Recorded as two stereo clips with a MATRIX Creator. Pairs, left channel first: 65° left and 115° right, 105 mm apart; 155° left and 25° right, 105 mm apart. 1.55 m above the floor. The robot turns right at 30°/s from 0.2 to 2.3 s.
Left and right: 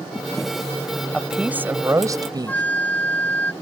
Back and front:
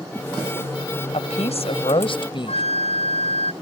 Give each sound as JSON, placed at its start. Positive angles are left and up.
{"t": 1.1, "sound": "a woman speaking", "azimuth_deg": 160}
{"t": 2.5, "sound": "a flute", "azimuth_deg": 145}